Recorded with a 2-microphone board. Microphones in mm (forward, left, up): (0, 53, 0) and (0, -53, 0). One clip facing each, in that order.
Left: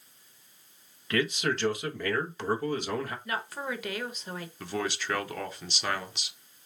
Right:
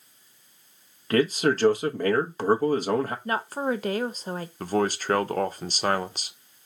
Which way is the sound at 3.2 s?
40° right (ahead or behind).